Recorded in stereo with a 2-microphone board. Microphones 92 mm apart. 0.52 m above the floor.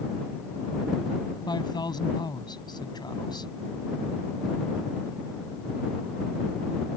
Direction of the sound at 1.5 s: 45° left (ahead or behind).